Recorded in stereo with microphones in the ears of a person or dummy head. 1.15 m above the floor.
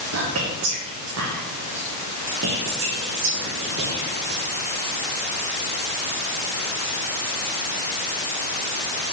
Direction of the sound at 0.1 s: 70° right (ahead or behind).